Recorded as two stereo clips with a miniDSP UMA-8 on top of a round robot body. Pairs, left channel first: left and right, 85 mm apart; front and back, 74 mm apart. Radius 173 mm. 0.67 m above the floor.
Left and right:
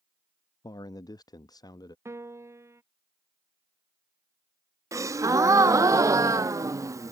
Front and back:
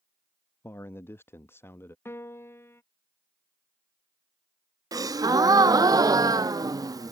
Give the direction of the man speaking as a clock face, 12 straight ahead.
10 o'clock.